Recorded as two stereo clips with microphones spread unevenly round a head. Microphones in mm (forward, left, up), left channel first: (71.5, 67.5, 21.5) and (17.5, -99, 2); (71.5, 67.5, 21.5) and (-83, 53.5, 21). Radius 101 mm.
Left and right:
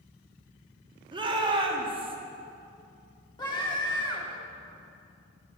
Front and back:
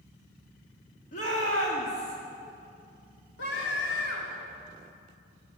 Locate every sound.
1.1 s a shout: 45° right, 2.5 m; by 2.2 s 50° right, 2.0 m
3.4 s a scream: 5° left, 2.5 m